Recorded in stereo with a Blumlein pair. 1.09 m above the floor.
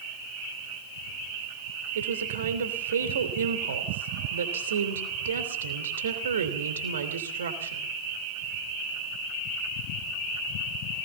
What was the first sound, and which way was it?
A woman speaking, 65° right.